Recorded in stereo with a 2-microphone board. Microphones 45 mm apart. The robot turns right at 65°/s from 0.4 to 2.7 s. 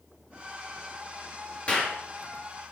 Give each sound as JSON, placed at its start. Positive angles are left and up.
{"t": 1.7, "sound": "a clap", "side_deg": 25, "distance_m": 3.0}